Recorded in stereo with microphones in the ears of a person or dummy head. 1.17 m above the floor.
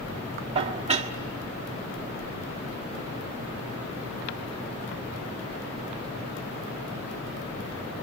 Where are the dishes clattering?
35° right (ahead or behind), 1.4 m.